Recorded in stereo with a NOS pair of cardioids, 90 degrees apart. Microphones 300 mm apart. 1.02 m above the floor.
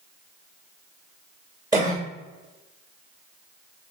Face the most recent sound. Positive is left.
turn(degrees=-10)